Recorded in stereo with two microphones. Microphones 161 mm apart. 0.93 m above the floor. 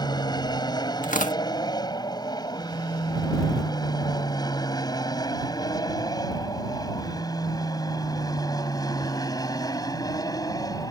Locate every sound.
0.0 s an aircraft: 25° left (ahead or behind); by 10.9 s 20° left (ahead or behind)
1.0 s tearing paper: 55° left (ahead or behind)